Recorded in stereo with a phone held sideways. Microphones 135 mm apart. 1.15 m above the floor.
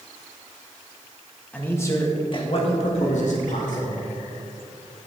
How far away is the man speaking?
About 1.9 m.